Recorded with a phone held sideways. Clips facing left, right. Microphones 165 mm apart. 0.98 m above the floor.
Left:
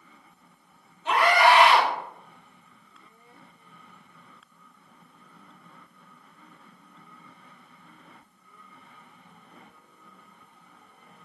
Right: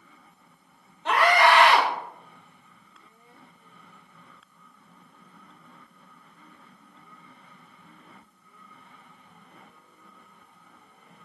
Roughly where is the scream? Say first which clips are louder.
Even; right.